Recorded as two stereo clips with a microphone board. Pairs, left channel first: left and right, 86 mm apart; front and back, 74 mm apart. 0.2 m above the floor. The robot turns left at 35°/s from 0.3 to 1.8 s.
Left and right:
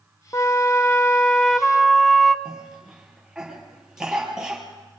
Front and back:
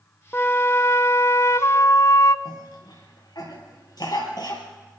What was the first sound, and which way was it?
A flute, 50° left.